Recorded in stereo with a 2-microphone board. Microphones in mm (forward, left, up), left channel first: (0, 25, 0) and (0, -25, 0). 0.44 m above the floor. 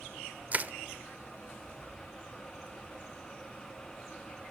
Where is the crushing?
30° right (ahead or behind), 0.8 m.